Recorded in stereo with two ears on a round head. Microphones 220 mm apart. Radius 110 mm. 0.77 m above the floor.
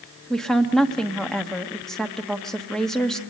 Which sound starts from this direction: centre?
A woman speaking, at 0.3 s.